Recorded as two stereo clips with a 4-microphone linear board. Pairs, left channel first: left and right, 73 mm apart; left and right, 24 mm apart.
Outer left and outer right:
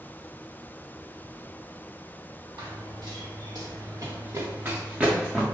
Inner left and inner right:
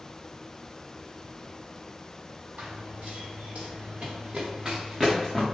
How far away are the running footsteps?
About 1.7 m.